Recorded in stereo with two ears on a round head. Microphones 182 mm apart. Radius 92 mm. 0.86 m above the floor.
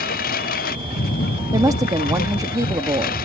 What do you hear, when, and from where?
0.0 s a lawn mower: 40° left (ahead or behind)
1.5 s a woman speaking: 15° right (ahead or behind)